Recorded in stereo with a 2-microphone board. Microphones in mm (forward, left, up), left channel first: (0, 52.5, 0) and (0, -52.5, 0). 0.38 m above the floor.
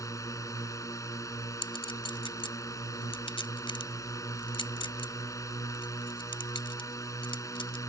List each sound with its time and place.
0.0 s a drone: 30° left (ahead or behind)
1.6 s a clink: 55° left (ahead or behind)